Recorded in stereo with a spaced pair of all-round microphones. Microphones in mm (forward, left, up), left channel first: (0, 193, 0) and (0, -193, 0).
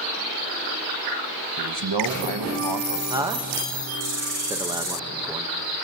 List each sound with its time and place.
1.6 s a man speaking: 80° right, 1.0 m
3.1 s a man speaking: 10° right (ahead or behind), 1.1 m